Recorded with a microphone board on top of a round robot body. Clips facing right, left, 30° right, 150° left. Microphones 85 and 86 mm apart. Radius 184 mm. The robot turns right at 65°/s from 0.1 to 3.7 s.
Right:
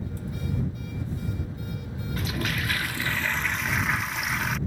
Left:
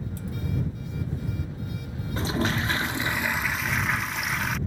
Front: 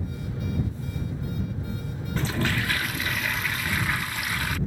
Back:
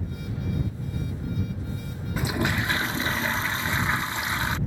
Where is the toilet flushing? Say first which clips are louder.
Left 4 dB, back 1 dB; 80° left; by 4.6 s straight behind.